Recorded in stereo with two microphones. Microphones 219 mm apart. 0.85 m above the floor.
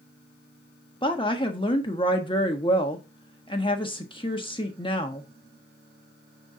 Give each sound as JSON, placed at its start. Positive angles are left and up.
{"t": 1.0, "sound": "a woman speaking", "side_deg": 25, "distance_m": 1.4}